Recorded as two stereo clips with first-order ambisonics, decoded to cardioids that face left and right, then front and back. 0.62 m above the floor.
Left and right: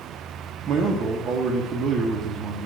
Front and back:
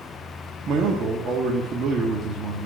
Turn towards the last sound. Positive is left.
turn(degrees=-130)